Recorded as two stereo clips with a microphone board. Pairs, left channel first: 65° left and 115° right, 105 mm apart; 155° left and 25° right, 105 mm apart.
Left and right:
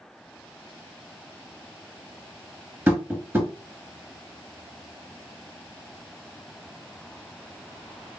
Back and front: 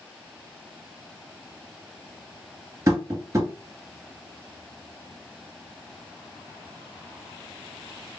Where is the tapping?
60° right, 1.0 m.